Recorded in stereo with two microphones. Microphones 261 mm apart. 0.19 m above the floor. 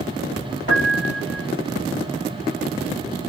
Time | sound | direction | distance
0.7 | a piano | 45° right (ahead or behind) | 1.2 m